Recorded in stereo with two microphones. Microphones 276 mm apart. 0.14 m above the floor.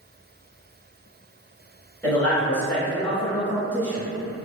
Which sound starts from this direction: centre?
A man speaking, at 2.0 s.